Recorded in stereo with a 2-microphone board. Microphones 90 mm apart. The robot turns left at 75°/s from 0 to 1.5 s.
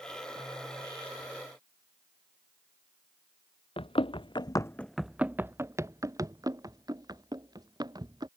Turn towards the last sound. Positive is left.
turn(degrees=-50)  # may be behind; listen again after turning